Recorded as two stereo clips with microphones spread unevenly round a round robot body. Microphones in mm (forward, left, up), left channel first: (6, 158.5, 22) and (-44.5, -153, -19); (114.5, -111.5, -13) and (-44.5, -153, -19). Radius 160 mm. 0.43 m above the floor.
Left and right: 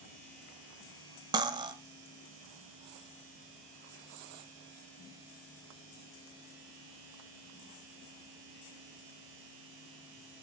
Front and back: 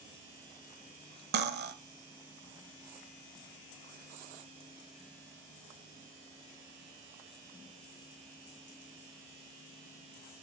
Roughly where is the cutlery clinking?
Behind.